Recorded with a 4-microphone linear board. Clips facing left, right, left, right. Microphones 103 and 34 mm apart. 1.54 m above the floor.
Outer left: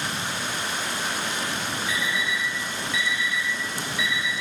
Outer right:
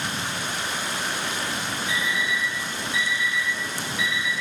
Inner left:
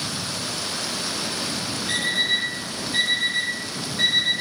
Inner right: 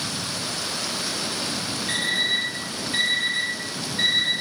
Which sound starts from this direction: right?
An alarm clock, at 1.9 s.